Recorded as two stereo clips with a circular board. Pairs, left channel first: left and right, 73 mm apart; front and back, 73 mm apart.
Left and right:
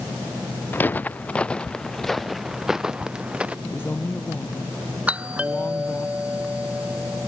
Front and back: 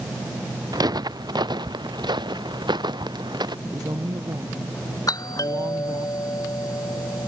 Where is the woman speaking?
150° left.